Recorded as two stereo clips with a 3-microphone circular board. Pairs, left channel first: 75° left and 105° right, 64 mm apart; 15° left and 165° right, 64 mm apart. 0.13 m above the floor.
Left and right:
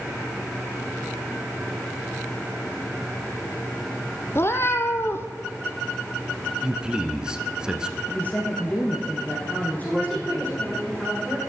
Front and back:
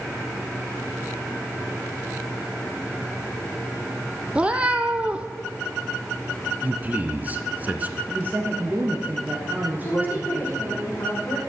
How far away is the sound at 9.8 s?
About 5 m.